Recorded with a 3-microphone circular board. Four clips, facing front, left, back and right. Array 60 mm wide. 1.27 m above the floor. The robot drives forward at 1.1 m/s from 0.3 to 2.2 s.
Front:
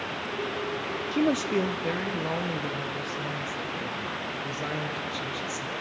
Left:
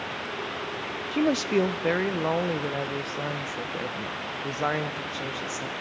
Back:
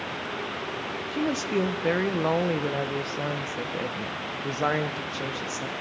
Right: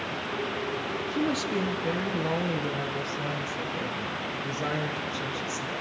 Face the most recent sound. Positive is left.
turn(degrees=145)